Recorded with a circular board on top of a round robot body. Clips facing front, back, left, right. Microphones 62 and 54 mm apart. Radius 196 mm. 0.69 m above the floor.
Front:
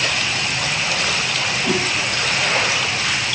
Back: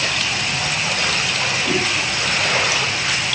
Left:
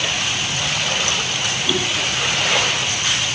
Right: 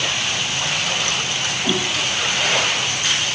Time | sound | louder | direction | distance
1.6 | a whoosh | front 1 dB, even | 55° right | 1.4 m